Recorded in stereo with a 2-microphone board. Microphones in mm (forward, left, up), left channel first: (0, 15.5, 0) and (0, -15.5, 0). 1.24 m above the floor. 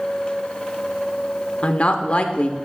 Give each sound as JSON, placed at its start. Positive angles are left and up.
{"t": 1.6, "sound": "a woman speaking", "side_deg": 45, "distance_m": 0.6}